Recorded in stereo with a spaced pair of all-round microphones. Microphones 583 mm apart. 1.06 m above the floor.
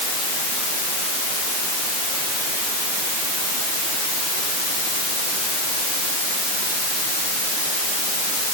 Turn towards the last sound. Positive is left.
No sound to turn to.